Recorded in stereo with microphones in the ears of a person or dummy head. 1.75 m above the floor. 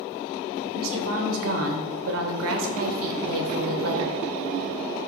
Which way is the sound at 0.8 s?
75° right (ahead or behind).